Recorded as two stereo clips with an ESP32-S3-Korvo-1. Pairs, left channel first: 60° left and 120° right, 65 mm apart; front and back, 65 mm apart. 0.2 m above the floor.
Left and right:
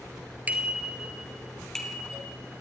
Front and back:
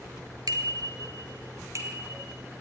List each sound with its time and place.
0.5 s a bicycle bell: 175° left, 2.5 m; by 2.3 s 135° left, 4 m